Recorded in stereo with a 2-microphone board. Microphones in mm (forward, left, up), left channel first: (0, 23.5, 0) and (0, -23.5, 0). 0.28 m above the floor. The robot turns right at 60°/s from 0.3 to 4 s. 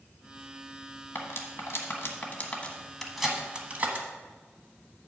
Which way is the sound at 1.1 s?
50° left (ahead or behind).